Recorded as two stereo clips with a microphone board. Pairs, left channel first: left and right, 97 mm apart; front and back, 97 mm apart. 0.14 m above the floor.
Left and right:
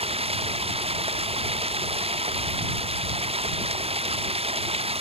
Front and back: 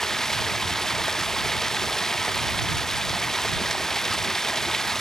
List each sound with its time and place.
0.0 s running water: 85° right